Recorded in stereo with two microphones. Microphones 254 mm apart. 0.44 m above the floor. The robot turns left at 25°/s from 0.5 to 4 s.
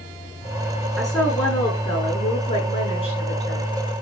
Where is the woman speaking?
Straight behind, 6 m; by 3.7 s 110° left, 6 m.